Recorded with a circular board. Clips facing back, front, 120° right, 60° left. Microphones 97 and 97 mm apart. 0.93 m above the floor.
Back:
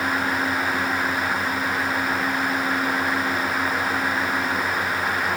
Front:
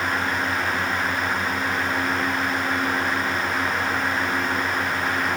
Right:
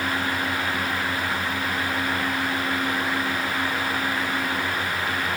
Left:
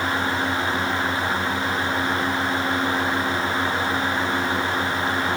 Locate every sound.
Only background noise.